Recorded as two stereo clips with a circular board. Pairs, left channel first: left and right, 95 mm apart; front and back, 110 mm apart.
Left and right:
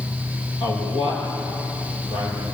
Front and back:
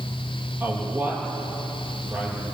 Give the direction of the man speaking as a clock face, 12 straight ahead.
8 o'clock.